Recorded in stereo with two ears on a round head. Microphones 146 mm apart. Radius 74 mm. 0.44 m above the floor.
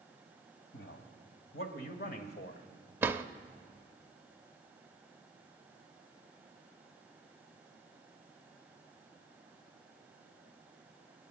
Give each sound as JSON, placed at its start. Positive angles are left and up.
{"t": 0.7, "sound": "a man speaking", "side_deg": 70, "distance_m": 2.5}
{"t": 3.0, "sound": "a drawer", "side_deg": -15, "distance_m": 0.7}